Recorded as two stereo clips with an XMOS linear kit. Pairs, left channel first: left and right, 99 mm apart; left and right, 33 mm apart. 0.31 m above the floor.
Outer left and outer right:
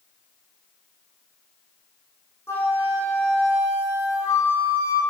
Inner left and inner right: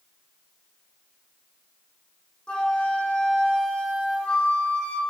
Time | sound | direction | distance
2.5 | a flute | 25° left (ahead or behind) | 6 m